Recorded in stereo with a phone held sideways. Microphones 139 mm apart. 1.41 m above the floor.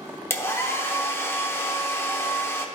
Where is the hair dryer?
20° left (ahead or behind), 0.7 m.